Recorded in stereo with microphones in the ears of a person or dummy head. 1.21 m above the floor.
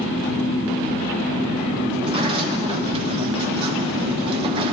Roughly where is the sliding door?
Right.